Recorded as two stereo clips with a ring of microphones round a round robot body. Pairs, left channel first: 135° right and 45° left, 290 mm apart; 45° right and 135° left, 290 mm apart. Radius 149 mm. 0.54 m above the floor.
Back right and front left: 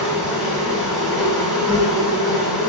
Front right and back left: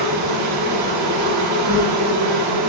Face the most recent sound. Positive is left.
turn(degrees=135)